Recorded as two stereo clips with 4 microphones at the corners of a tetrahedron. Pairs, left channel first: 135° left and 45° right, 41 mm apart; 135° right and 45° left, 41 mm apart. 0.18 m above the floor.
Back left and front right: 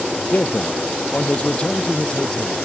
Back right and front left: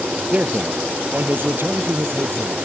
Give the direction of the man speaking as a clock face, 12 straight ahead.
9 o'clock.